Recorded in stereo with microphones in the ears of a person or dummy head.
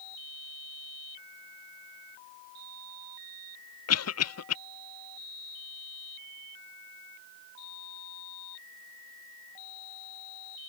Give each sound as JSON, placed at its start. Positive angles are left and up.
{"t": 3.9, "sound": "a cough", "side_deg": 85}